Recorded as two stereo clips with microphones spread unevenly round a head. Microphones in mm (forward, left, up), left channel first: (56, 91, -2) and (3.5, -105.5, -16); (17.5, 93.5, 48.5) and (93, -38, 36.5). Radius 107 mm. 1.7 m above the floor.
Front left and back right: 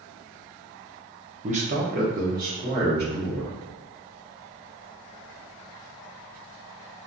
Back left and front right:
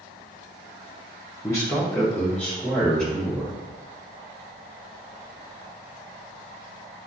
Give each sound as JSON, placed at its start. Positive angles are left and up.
{"t": 1.4, "sound": "a man speaking", "azimuth_deg": -165, "distance_m": 0.6}